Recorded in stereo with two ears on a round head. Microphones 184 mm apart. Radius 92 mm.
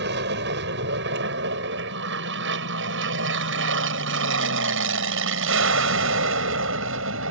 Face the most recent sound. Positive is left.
turn(degrees=-70)  # may be behind; listen again after turning